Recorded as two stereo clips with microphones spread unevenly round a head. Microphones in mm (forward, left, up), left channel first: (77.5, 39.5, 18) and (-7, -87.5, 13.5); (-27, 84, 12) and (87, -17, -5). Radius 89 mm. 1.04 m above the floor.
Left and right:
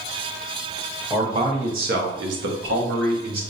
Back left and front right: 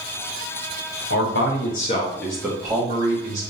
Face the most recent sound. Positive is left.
turn(degrees=-95)